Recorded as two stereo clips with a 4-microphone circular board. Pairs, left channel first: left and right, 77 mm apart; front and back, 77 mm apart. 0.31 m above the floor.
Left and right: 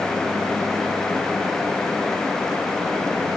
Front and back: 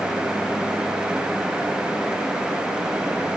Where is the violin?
I don't hear a violin.